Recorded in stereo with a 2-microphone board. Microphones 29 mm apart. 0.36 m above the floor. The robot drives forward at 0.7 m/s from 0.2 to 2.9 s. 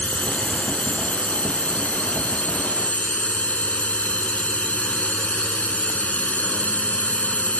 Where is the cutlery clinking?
I don't hear cutlery clinking.